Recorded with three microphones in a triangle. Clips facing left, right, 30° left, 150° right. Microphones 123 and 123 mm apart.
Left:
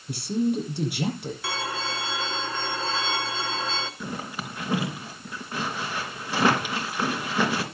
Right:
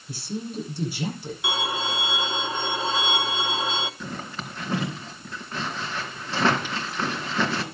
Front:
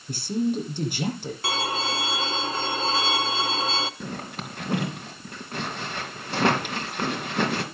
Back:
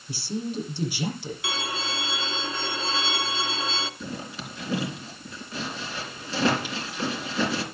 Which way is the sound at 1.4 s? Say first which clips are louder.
Right 4 dB, front 6 dB; 15° right.